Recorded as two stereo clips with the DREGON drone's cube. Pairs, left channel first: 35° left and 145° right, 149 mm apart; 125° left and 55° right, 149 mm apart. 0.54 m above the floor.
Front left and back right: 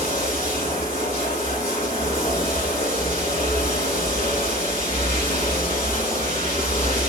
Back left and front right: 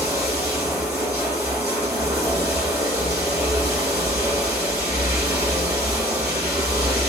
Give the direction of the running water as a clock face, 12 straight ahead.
11 o'clock.